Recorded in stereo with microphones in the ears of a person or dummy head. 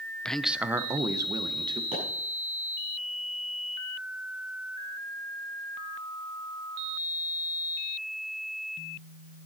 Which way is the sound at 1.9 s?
35° right (ahead or behind).